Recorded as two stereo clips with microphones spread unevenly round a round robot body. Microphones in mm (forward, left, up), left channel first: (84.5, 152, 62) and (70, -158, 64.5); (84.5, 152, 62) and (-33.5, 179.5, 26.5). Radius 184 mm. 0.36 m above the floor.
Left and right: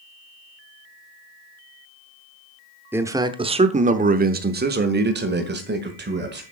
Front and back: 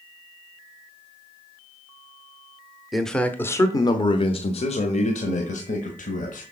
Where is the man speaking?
165° right, 0.8 m; by 6.4 s 40° right, 1.8 m.